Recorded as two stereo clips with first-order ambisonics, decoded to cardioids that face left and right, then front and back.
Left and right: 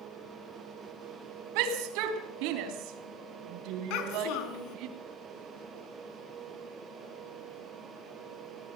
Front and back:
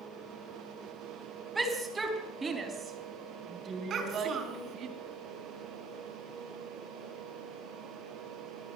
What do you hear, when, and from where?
1.6 s a shout: 105° right, 4 m; by 4.9 s 125° right, 4 m
3.9 s a child speaking: 120° left, 4.5 m